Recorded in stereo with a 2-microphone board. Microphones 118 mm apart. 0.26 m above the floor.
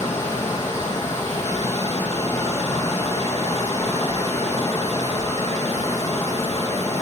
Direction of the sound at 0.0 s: 20° left (ahead or behind).